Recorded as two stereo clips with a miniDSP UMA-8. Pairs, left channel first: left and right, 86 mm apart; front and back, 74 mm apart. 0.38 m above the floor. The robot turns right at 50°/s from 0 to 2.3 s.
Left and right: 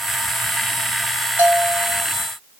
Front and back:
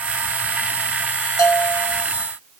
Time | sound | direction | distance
1.4 | a bell | 25° right | 1.0 m